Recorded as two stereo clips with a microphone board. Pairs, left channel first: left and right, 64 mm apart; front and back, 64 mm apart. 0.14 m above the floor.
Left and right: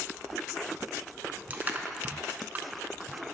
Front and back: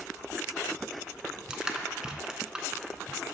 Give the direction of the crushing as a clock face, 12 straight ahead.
4 o'clock.